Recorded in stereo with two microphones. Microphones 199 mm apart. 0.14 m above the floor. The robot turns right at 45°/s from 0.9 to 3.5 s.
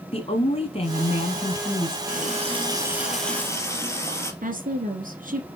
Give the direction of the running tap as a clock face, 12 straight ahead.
2 o'clock.